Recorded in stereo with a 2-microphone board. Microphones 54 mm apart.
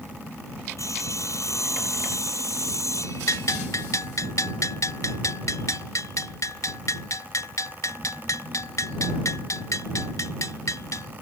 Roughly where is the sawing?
Left.